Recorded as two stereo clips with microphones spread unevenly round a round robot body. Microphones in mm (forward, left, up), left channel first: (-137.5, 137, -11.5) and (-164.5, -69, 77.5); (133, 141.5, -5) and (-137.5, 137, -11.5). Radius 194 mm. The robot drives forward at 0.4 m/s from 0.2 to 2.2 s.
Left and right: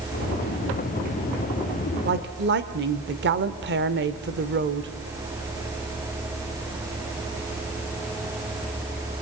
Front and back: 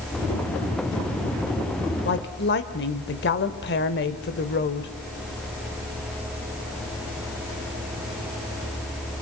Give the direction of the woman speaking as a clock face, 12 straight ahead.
1 o'clock.